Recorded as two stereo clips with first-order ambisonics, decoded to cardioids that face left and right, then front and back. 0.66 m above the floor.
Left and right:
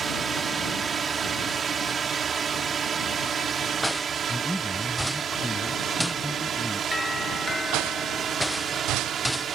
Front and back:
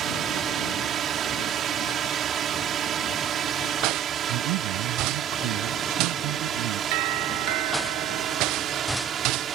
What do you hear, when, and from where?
0.0 s a drone: 145° right; by 9.6 s 135° right
4.3 s a man speaking: straight behind
6.9 s a doorbell: 175° left